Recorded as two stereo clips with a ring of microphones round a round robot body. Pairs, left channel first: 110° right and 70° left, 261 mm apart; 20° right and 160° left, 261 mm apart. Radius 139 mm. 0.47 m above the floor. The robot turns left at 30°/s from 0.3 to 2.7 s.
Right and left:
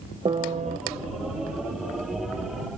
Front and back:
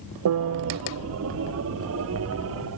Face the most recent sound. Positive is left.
turn(degrees=70)